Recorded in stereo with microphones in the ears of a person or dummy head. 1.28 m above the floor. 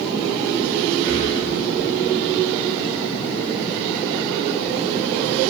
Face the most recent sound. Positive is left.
turn(degrees=-70)  # may be behind; listen again after turning